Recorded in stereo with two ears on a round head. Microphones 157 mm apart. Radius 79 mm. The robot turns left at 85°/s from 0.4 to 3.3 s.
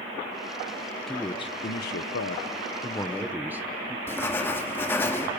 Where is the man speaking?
Straight behind, 1.0 m; by 4.0 s 10° right, 1.0 m.